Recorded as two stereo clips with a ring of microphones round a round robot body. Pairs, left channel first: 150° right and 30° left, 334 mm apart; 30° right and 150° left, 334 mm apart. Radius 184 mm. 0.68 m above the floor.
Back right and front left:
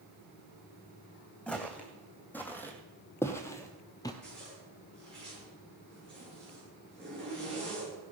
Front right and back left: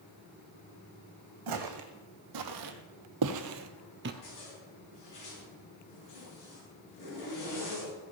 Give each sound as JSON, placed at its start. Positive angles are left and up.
{"t": 1.5, "sound": "footsteps", "azimuth_deg": 125, "distance_m": 1.9}
{"t": 4.2, "sound": "a zipper", "azimuth_deg": -65, "distance_m": 7.5}